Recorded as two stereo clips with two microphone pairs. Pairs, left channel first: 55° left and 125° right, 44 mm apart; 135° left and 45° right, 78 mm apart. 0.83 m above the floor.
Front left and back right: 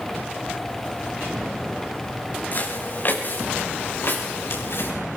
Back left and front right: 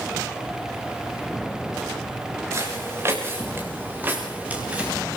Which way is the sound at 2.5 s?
5° left.